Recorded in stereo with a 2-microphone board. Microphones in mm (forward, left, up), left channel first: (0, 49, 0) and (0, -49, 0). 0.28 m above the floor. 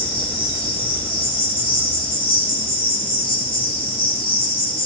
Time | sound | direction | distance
0.0 | an insect | 70° left (ahead or behind) | 8 m